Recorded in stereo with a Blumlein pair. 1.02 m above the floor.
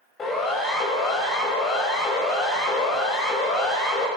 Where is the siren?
20° left, 6.5 m.